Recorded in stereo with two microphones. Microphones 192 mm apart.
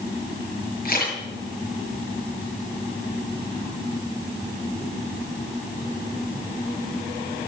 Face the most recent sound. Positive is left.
turn(degrees=50)  # may be behind; listen again after turning